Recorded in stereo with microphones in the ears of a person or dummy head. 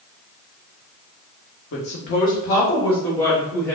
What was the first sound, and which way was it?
A woman speaking, 55° left (ahead or behind).